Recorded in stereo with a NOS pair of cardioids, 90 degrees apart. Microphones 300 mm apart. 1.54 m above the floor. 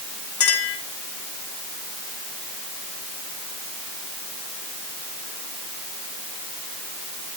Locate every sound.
0.4 s a clink: 50° left, 3.5 m